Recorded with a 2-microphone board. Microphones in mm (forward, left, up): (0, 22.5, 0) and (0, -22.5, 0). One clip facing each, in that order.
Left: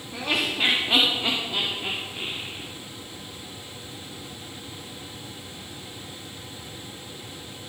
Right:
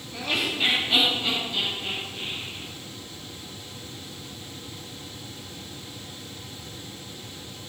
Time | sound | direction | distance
0.1 | laughter | 25° left (ahead or behind) | 2 m